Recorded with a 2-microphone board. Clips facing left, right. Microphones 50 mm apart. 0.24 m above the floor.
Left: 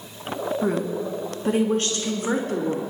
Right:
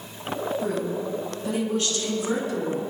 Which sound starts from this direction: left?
A woman speaking, at 0.6 s.